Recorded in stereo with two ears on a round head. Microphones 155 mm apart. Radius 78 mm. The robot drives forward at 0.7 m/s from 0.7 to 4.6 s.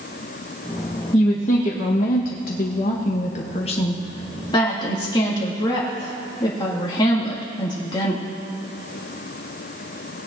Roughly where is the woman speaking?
Left.